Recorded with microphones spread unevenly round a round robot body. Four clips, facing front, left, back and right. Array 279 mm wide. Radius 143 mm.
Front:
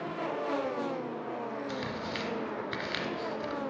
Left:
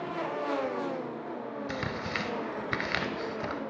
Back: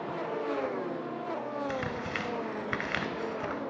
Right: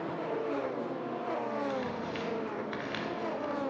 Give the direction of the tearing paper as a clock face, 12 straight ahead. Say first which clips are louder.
Even, back 2 dB; 8 o'clock.